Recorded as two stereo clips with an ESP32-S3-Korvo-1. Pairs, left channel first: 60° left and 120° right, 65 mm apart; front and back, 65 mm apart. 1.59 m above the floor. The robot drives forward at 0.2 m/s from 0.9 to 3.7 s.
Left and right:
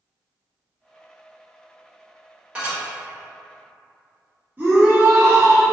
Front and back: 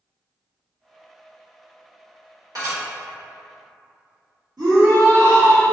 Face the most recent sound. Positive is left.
turn(degrees=180)